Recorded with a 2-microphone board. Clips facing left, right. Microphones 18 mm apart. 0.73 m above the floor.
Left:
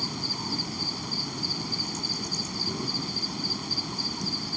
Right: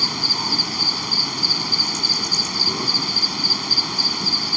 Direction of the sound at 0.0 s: 50° right (ahead or behind).